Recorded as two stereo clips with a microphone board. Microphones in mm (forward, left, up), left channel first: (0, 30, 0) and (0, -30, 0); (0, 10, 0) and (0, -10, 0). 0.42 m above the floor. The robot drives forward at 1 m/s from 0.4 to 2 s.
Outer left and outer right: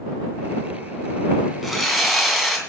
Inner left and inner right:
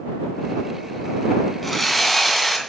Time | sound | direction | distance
1.6 | sawing | 5° right (ahead or behind) | 3 m